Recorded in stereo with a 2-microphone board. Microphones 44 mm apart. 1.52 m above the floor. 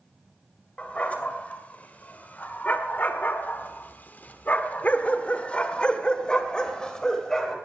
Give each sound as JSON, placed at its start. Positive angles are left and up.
{"t": 0.8, "sound": "a dog barking", "side_deg": 30, "distance_m": 2.5}